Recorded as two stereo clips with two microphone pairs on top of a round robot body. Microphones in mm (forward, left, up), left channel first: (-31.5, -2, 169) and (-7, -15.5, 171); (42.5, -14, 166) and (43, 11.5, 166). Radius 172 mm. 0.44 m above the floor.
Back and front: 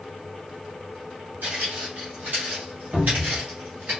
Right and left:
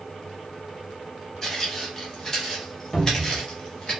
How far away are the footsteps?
About 1.8 m.